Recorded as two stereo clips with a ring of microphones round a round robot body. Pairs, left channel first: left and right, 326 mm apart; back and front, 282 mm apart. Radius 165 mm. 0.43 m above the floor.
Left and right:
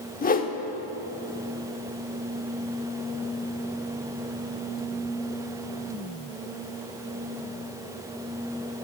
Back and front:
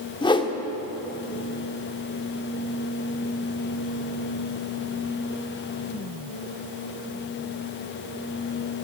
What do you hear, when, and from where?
0.2 s a whoosh: 125° left, 1.0 m